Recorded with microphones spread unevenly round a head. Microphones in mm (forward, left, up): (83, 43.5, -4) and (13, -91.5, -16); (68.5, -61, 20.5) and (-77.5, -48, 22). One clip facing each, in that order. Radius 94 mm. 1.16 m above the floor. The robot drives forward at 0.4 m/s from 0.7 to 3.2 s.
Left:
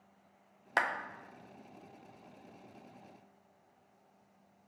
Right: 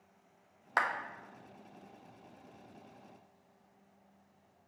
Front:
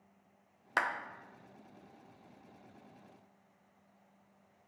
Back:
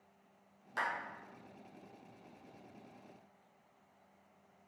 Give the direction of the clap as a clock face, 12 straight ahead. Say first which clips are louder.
Even, front 4 dB; 12 o'clock.